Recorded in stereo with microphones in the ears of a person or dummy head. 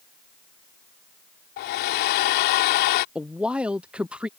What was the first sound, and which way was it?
A hair dryer, 45° left (ahead or behind).